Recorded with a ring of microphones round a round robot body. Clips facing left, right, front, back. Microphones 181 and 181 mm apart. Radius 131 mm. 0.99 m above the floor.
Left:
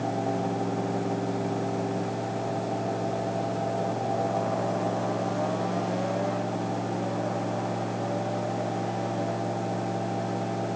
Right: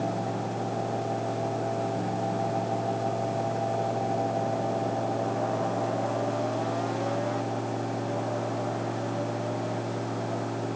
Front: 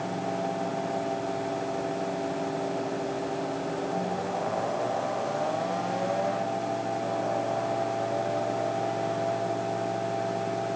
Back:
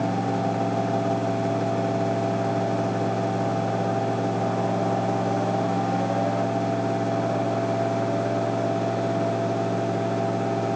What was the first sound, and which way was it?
Only background noise.